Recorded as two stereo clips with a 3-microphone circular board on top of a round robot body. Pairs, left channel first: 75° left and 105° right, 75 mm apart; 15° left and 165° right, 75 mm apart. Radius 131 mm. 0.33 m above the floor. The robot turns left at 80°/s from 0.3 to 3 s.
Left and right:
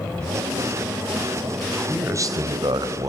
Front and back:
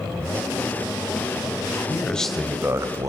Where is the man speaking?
20° right, 3 m; by 3.1 s 130° right, 3 m.